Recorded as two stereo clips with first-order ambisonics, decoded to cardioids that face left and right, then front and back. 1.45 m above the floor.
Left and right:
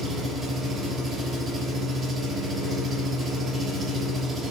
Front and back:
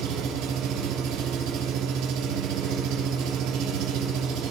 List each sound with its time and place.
0.0 s an engine running: 175° right, 4 m